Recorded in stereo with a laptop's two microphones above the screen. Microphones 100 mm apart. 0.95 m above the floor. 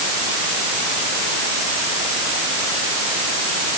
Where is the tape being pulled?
No tape being pulled in this recording.